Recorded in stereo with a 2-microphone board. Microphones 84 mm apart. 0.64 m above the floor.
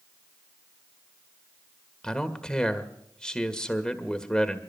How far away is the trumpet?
I don't hear a trumpet.